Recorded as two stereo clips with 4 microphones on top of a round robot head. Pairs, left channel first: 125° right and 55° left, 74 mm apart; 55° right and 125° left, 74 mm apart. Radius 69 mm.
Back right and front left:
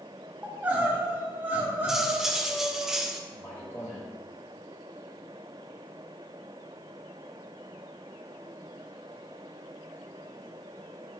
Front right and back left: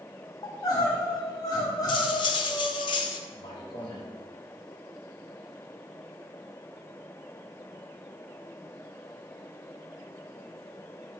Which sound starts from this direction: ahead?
Crying, at 0.4 s.